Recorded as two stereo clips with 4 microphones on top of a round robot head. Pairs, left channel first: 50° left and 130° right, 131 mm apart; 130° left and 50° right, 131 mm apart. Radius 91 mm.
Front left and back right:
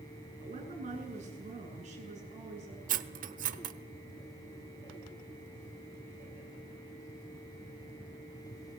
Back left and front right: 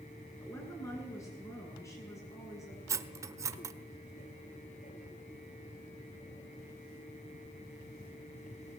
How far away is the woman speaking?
About 8.5 m.